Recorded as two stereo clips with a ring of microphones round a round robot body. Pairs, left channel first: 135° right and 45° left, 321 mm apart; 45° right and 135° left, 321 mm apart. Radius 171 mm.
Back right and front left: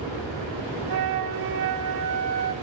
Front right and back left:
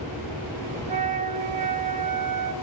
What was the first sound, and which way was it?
A flute, 65° left.